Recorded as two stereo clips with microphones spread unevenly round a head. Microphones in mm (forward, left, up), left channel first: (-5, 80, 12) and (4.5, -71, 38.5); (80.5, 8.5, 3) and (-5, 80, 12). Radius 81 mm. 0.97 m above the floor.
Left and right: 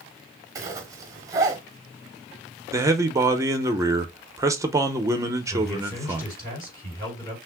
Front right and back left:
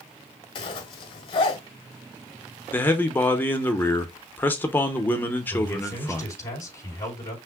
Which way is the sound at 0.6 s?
45° right.